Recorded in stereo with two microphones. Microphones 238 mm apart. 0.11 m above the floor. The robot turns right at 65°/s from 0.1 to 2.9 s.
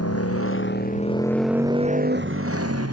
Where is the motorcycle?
95° left; by 2.9 s 85° right.